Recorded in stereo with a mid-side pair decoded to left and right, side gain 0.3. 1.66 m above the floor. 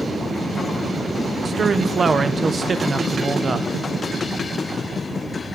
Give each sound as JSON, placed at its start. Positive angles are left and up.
{"t": 1.4, "sound": "a man speaking", "azimuth_deg": -50, "distance_m": 0.6}